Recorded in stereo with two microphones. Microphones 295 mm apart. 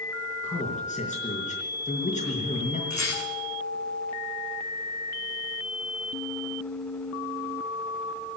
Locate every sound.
0.4 s a man speaking: 25° left (ahead or behind), 4.5 m
2.9 s a rattle: 70° left (ahead or behind), 9.5 m